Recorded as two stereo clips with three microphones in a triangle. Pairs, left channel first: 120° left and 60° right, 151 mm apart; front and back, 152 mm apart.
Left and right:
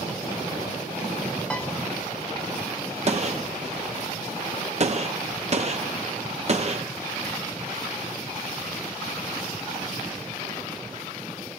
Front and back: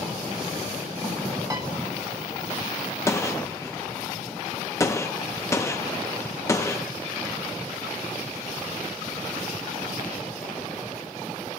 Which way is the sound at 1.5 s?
175° right.